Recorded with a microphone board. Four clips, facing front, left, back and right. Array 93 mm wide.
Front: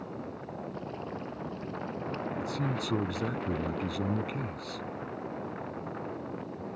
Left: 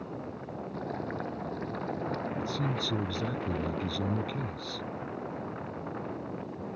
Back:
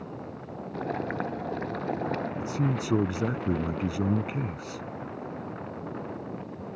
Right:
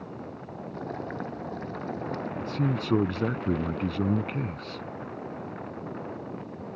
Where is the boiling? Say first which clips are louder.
Right 1 dB, back 7 dB; 175° right.